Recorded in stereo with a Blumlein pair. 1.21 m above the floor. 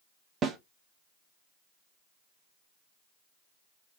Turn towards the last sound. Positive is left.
turn(degrees=-20)